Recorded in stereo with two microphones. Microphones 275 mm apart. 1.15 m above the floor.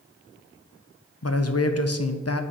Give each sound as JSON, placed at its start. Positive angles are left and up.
{"t": 1.2, "sound": "a man speaking", "side_deg": 60, "distance_m": 0.6}